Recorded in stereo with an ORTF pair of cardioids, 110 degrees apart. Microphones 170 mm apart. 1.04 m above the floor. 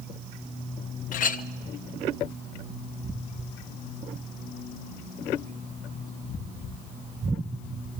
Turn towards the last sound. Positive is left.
turn(degrees=50)